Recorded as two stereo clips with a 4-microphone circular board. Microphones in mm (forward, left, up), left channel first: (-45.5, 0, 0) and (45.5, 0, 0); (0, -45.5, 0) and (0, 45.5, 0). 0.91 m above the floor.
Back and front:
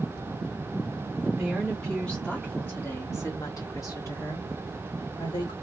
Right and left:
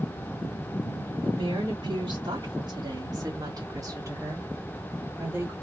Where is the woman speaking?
85° left, 1.8 m; by 5.5 s 155° left, 2.5 m.